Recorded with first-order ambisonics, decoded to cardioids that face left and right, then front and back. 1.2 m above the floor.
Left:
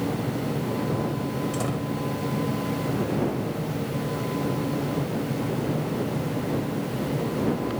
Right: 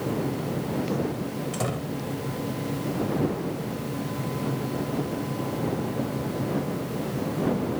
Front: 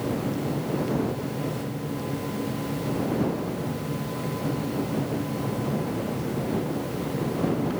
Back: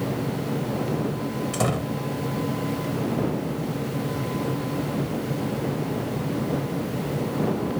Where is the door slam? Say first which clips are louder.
Left 1 dB, back 7 dB; 175° right.